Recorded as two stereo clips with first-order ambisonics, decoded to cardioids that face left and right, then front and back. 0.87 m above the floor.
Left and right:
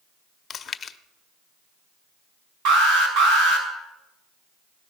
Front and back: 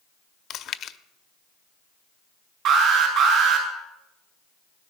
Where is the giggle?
No giggle in this recording.